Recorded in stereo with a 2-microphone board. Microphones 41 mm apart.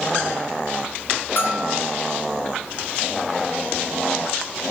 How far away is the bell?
About 3.5 m.